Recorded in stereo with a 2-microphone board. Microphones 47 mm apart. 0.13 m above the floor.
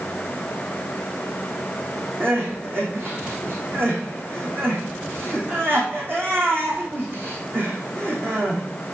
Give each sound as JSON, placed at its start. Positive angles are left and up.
{"t": 2.2, "sound": "crying", "side_deg": -50, "distance_m": 3.5}